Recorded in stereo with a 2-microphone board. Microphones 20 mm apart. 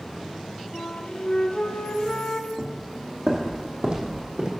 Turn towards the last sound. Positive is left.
turn(degrees=-65)  # may be behind; listen again after turning